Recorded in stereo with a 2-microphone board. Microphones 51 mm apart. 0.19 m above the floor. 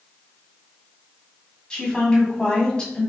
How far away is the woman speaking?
About 1.6 m.